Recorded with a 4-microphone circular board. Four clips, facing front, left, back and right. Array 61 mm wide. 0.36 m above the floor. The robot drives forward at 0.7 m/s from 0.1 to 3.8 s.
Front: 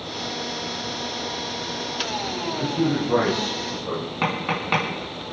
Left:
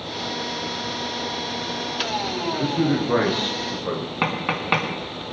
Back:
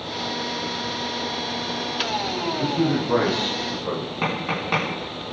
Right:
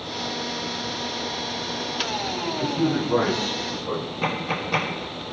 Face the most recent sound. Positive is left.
turn(degrees=80)